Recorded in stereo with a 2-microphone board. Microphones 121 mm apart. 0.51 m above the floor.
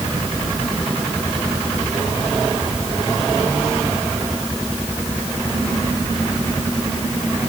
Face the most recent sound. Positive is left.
No sound to turn to.